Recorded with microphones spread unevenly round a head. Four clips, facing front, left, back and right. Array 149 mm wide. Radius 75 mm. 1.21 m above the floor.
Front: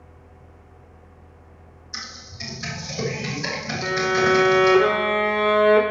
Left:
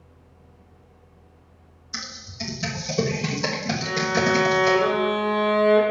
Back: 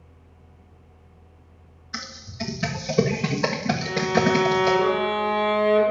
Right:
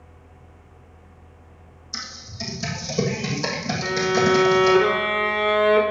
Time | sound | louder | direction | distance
1.9 | typing on a keyboard | even, back 5 dB | straight behind | 1.5 m
3.8 | a violin | right 4 dB, front 3 dB | 25° right | 2.5 m